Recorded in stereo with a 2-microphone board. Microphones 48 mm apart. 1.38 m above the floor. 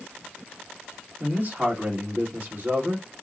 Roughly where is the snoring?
I don't hear snoring.